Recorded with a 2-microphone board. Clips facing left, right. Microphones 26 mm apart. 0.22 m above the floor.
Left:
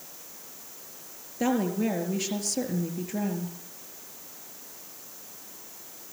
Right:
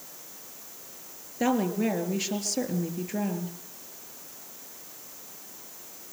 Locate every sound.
1.4 s a woman speaking: 5° right (ahead or behind), 4 m